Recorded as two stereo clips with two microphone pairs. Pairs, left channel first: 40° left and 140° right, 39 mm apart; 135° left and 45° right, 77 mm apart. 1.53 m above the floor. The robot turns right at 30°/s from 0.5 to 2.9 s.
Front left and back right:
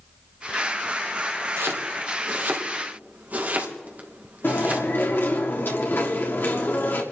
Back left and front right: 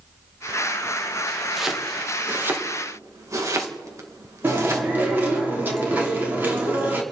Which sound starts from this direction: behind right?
Chopping, at 1.6 s.